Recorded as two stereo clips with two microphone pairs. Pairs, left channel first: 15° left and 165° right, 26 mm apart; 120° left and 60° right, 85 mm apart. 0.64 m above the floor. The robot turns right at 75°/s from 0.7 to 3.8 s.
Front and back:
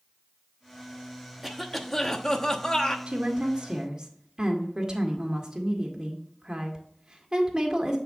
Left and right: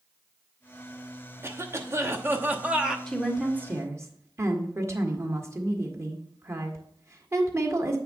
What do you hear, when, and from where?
1.4 s a cough: 85° right, 0.9 m; by 3.0 s 30° left, 0.9 m
3.1 s a woman speaking: 160° right, 1.4 m; by 8.0 s 105° right, 1.4 m